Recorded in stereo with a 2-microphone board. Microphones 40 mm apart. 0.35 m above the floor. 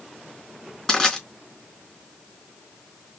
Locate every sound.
0.9 s crushing: 10° left (ahead or behind), 3 m